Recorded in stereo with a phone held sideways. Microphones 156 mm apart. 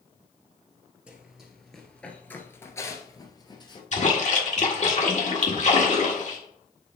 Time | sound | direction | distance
1.1 | running footsteps | 10° right (ahead or behind) | 1.4 m
3.9 | a splash | 50° left (ahead or behind) | 1.5 m